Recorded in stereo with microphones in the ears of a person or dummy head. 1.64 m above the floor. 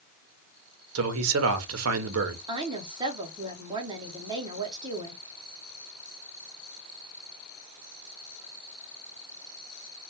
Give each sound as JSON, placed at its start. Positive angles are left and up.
{"t": 0.9, "sound": "a man speaking", "side_deg": -75, "distance_m": 0.6}
{"t": 2.5, "sound": "a woman speaking", "side_deg": -25, "distance_m": 0.7}